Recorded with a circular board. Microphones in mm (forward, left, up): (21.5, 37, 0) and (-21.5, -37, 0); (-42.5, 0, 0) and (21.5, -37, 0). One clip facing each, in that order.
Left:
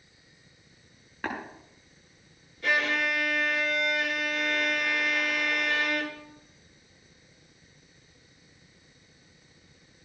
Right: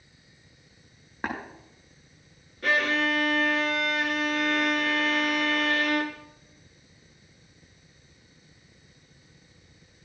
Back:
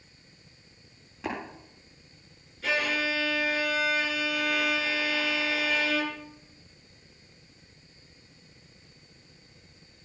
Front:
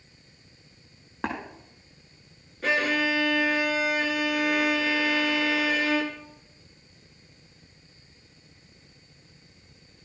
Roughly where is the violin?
Right.